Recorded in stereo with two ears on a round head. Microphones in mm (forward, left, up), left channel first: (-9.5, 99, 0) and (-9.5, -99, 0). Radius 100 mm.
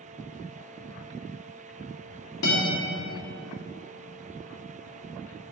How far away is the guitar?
About 1.8 m.